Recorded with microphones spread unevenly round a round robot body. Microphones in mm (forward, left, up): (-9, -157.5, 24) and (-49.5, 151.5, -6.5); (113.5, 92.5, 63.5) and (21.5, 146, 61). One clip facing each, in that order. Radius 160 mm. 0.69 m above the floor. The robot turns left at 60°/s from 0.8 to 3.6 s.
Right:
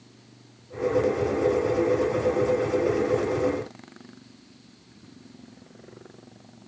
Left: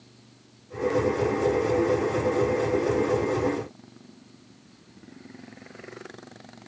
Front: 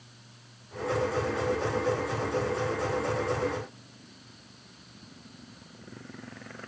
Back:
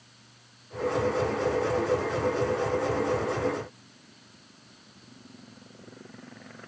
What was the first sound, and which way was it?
Only background noise.